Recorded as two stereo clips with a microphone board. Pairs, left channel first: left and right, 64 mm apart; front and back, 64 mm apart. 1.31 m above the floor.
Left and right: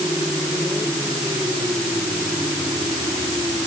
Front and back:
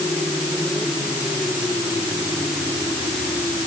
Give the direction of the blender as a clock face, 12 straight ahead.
No blender in this recording.